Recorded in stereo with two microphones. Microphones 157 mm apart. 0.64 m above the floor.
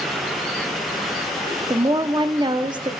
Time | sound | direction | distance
1.7 | a woman speaking | 30° right (ahead or behind) | 0.8 m